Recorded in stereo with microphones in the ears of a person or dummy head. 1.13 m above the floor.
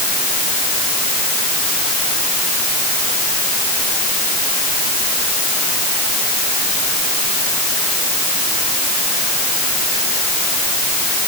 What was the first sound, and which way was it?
Only background noise.